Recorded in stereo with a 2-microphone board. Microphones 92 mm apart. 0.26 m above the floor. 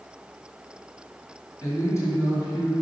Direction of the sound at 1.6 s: 30° left (ahead or behind).